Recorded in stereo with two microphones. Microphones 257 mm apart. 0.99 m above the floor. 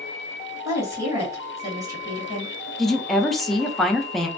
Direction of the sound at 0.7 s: 10° right (ahead or behind).